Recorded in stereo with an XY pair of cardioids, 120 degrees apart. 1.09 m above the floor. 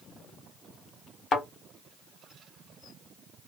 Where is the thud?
50° left, 1.3 m.